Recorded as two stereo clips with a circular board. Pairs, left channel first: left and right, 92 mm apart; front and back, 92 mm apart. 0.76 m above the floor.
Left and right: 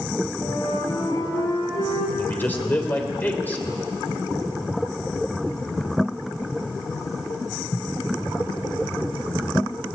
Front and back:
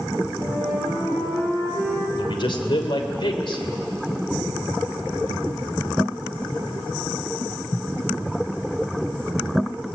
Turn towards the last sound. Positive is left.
turn(degrees=20)